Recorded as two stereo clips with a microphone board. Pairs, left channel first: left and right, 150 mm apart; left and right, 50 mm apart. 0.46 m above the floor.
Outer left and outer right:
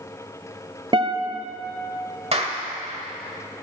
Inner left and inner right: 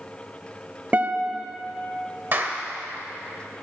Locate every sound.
0.9 s a guitar: 35° right (ahead or behind), 0.9 m
2.3 s a clap: 40° right (ahead or behind), 1.2 m